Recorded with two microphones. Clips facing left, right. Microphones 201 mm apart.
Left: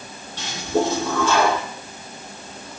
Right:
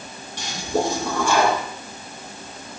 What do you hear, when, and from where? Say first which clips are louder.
0.4 s a toilet flushing: left 2 dB; 15° right (ahead or behind), 4 m